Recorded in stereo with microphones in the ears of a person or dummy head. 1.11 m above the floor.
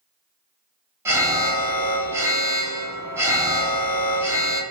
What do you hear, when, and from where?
1.1 s an alarm: 15° right (ahead or behind), 0.9 m